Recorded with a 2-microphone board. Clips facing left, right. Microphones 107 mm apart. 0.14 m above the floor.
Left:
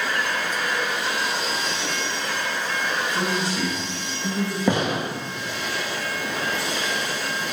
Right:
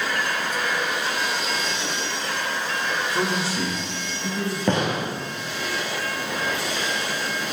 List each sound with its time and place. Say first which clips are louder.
3.1 s a man speaking: even; 5° right (ahead or behind), 2 m; by 4.6 s 10° right (ahead or behind), 3.5 m
4.7 s a gunshot: even; 5° left (ahead or behind), 2 m